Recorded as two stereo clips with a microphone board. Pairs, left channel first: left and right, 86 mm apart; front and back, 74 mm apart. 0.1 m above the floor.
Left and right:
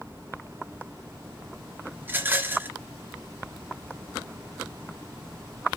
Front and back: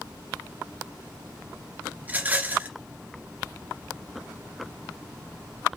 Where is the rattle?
130° right, 1.6 m.